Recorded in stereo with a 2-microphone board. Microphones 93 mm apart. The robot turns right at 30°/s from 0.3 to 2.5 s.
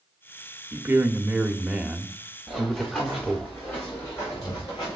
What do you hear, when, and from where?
0.7 s a man speaking: 40° right, 0.7 m; by 3.5 s 15° left, 0.7 m
2.5 s running footsteps: 5° left (ahead or behind), 3 m; by 5.0 s 40° left (ahead or behind), 4 m